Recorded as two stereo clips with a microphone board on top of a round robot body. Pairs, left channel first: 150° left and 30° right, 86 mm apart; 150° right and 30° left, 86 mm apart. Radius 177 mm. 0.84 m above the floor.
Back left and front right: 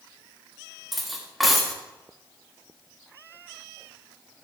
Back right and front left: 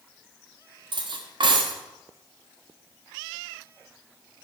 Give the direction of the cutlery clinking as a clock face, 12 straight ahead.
10 o'clock.